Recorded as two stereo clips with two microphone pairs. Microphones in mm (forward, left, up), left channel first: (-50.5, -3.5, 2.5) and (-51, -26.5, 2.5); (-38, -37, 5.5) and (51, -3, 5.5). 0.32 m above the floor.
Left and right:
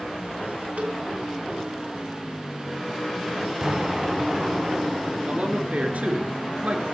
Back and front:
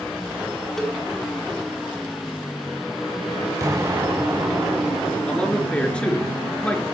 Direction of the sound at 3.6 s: 35° right.